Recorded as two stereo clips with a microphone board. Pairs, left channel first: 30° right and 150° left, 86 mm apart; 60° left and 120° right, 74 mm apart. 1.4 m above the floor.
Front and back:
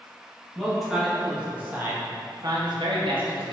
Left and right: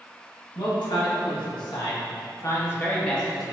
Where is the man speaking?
60° left, 1.8 m; by 3.5 s 150° left, 1.1 m.